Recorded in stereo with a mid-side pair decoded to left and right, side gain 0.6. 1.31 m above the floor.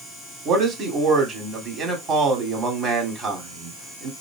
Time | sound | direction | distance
0.5 | a man speaking | 45° right | 2.5 m